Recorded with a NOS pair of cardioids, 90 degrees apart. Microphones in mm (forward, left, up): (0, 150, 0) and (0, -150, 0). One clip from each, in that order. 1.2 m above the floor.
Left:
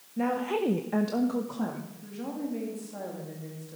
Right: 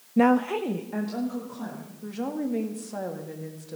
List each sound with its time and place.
0.2 s a woman speaking: 55° right, 0.6 m; by 1.9 s 45° left, 2 m
2.0 s a woman speaking: 50° right, 2 m